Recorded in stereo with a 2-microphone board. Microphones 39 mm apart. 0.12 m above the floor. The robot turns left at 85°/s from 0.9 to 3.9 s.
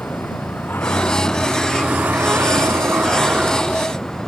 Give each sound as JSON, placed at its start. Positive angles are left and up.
{"t": 0.0, "sound": "a vehicle", "azimuth_deg": 55}